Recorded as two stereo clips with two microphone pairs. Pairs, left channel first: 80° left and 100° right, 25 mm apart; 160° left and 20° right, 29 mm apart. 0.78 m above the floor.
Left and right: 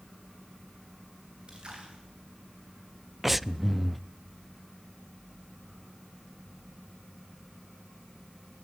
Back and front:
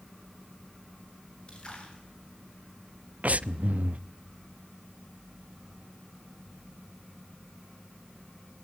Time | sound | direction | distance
1.5 | a splash | 145° right | 8.5 m
3.2 | breathing | 20° right | 0.6 m